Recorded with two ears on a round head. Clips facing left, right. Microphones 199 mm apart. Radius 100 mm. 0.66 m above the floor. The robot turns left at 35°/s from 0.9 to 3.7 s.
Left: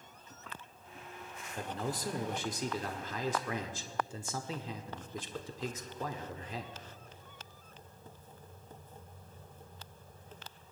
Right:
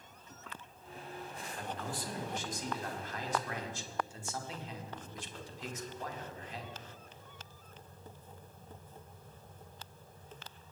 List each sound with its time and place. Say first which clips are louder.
1.6 s a man speaking: left 4 dB; 155° left, 1.4 m; by 6.8 s 80° left, 1.4 m